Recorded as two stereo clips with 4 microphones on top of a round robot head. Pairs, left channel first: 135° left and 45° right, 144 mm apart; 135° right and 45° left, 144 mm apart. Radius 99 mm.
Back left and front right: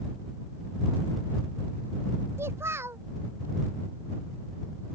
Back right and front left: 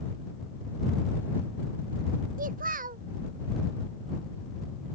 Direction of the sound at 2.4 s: 30° left.